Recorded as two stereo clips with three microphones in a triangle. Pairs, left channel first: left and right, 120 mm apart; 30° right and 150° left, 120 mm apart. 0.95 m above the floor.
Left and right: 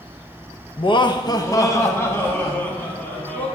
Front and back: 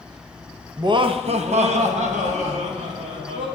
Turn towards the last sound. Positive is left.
turn(degrees=165)